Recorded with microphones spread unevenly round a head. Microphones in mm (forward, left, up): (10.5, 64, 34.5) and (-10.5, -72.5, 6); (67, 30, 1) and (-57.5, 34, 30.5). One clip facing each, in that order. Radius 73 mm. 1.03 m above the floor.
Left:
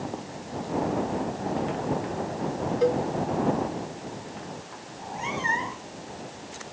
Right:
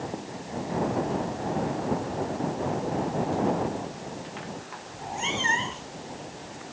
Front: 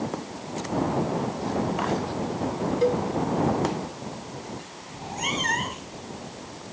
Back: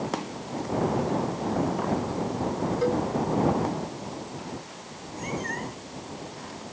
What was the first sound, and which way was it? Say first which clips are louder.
A cowbell: left 6 dB, front 3 dB; 70° left.